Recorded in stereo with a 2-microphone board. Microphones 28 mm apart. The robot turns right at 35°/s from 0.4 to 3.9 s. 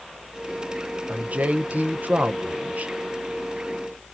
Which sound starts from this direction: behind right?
A man speaking, at 1.1 s.